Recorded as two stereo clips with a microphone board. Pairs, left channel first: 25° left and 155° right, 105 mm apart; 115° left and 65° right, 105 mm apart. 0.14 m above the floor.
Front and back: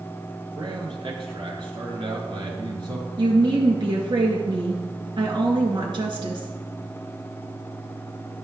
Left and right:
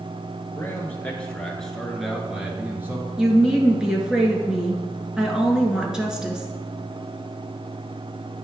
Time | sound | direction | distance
0.6 | a man speaking | 175° left | 2 m
3.2 | a woman speaking | 150° right | 1.8 m